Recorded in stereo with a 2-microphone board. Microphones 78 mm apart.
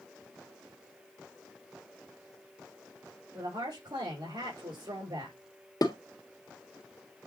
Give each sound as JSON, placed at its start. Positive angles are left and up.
{"t": 3.3, "sound": "a woman speaking", "side_deg": -65, "distance_m": 4.5}
{"t": 5.8, "sound": "dishes clattering", "side_deg": 50, "distance_m": 1.7}